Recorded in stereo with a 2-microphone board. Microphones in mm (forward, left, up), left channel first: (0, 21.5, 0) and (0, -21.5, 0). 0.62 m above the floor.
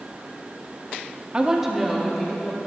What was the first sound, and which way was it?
A woman speaking, 25° right (ahead or behind).